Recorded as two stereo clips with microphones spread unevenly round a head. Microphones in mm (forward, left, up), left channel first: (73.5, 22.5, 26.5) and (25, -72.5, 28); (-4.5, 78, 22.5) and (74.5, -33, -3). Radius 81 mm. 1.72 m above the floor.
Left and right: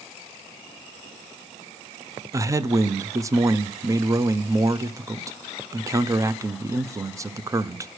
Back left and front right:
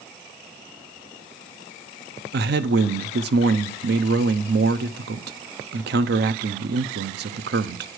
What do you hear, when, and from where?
2.3 s a man speaking: 55° right, 0.7 m